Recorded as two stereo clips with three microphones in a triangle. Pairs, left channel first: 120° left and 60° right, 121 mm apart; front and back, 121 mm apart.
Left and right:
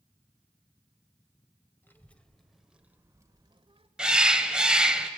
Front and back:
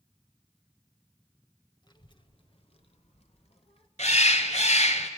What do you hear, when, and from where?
1.8 s a child speaking: 50° left, 1.9 m; by 3.9 s 25° right, 1.6 m
4.0 s a bird: 25° left, 1.0 m